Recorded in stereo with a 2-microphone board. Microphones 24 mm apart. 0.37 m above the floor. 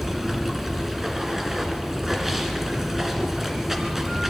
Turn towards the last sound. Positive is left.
turn(degrees=-15)  # may be behind; listen again after turning